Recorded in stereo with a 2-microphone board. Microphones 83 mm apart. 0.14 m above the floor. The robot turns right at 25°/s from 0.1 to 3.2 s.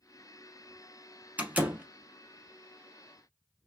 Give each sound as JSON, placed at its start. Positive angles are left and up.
{"t": 1.4, "sound": "a door slam", "side_deg": -15, "distance_m": 0.7}